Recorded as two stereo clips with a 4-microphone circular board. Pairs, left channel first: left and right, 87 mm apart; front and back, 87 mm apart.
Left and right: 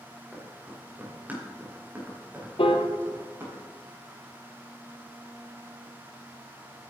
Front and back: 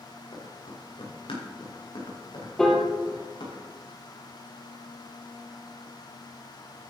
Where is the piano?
80° left, 1.6 m.